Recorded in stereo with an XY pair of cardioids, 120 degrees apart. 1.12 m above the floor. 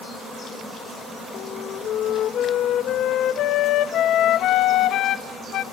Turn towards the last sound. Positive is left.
turn(degrees=65)